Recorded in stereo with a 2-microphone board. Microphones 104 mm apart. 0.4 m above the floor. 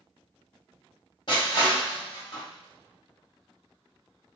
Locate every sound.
1.3 s crushing: 50° left (ahead or behind), 2 m